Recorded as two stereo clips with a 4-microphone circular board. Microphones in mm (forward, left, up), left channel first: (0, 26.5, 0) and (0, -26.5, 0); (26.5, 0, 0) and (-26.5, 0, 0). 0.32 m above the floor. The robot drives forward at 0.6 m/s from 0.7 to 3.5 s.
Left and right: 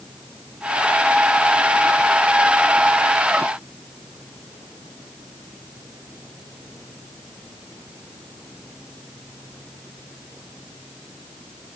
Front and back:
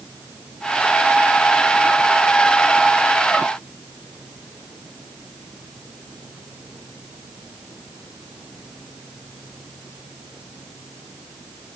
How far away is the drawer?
No drawer in this recording.